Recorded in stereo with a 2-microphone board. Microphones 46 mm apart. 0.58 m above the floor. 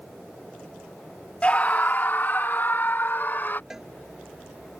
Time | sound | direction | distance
1.4 | a scream | 30° left (ahead or behind) | ?
3.7 | a cowbell | 10° right (ahead or behind) | ?